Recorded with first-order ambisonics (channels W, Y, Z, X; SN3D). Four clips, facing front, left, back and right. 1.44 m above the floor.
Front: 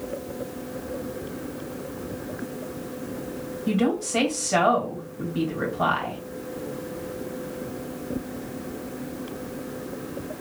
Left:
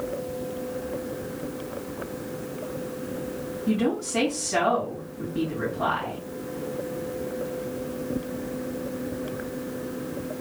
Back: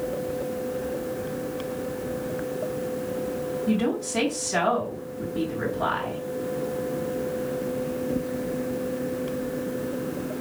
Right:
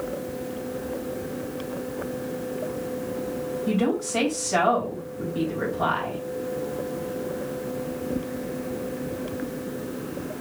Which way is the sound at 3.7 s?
20° right.